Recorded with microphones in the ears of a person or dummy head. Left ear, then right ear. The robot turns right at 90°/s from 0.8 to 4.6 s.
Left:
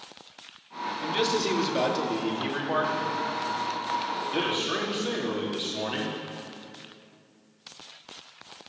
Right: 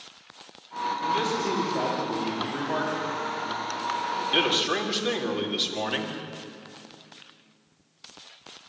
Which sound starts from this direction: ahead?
A man speaking, at 1.0 s.